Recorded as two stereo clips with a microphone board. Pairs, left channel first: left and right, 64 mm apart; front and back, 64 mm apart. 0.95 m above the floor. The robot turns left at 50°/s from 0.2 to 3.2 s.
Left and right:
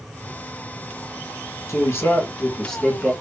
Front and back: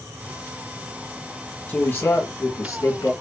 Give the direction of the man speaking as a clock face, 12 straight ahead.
10 o'clock.